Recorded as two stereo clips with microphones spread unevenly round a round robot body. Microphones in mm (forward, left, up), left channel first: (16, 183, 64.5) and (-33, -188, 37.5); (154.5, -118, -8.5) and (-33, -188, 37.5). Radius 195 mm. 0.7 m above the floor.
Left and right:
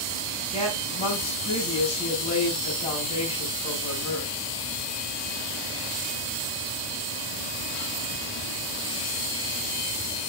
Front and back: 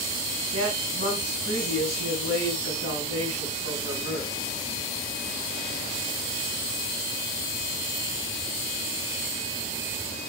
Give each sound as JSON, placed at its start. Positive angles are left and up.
{"t": 0.5, "sound": "a woman speaking", "azimuth_deg": 155, "distance_m": 6.0}